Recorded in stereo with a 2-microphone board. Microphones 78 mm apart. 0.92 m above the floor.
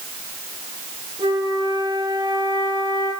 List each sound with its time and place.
1.2 s a flute: 80° right, 9.5 m